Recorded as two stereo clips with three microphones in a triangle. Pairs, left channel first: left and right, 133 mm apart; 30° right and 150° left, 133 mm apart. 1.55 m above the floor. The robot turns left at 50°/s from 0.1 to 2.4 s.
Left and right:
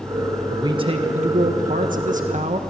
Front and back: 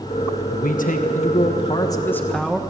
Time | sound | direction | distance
0.5 | a man speaking | 25° right | 1.6 m